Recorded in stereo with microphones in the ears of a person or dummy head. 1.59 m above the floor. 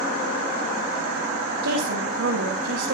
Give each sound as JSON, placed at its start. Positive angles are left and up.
{"t": 1.6, "sound": "a woman speaking", "side_deg": -75, "distance_m": 3.0}